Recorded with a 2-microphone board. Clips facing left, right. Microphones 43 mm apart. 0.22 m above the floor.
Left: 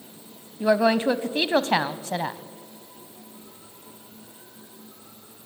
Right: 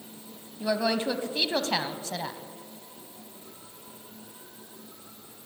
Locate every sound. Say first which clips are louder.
0.6 s a woman speaking: left 7 dB; 30° left (ahead or behind), 1.1 m